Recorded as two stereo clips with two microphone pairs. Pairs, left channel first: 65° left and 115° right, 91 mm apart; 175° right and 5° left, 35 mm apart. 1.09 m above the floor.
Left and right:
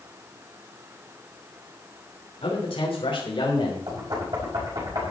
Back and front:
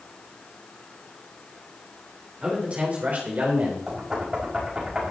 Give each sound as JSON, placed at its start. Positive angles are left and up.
{"t": 2.4, "sound": "a man speaking", "azimuth_deg": 60, "distance_m": 3.0}
{"t": 3.9, "sound": "knocking", "azimuth_deg": -70, "distance_m": 5.5}